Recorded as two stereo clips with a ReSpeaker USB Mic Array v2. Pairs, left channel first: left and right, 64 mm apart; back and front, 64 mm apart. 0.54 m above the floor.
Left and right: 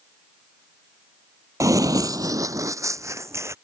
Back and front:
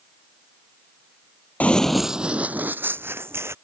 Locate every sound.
1.6 s running footsteps: 115° right; by 3.5 s 45° right